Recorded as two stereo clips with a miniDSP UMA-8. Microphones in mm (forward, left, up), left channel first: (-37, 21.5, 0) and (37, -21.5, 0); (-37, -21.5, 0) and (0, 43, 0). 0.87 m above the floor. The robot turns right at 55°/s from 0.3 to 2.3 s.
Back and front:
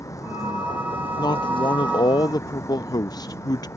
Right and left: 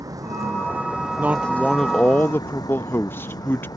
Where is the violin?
I don't hear a violin.